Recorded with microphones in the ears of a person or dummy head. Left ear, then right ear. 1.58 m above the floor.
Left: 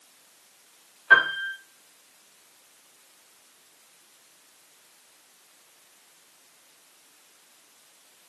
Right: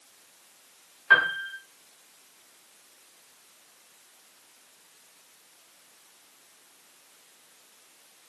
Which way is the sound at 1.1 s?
15° right (ahead or behind).